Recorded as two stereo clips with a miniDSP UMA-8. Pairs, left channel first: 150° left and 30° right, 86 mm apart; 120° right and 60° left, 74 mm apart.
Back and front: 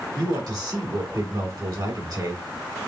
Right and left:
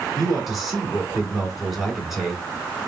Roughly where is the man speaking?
Ahead right.